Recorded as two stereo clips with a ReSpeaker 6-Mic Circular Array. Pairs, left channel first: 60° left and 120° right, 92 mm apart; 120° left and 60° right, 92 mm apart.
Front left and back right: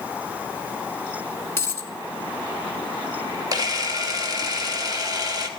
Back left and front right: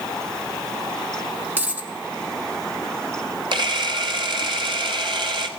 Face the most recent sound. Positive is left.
turn(degrees=-80)